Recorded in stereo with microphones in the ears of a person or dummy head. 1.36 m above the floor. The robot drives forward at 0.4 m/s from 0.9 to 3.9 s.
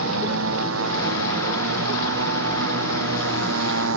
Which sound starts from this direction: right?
A motorcycle, at 0.0 s.